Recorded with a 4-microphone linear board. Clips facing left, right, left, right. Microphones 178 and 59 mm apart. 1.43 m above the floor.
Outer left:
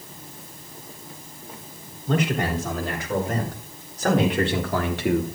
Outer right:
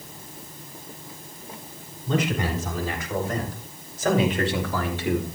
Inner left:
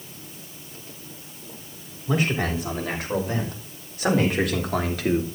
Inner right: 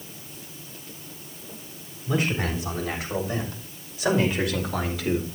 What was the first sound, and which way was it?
A man speaking, 70° left (ahead or behind).